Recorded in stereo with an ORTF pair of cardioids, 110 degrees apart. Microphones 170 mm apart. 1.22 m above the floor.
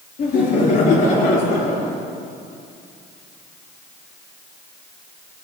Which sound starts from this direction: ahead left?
Laughter, at 0.2 s.